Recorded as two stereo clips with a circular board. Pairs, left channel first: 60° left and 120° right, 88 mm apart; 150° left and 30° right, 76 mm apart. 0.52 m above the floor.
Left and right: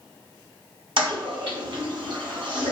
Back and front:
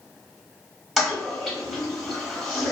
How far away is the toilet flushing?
About 1.0 m.